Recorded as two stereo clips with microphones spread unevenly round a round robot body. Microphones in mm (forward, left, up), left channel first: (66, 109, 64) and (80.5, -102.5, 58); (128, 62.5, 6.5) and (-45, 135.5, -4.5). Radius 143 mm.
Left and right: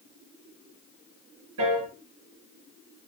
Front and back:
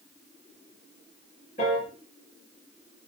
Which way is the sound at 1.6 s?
90° right.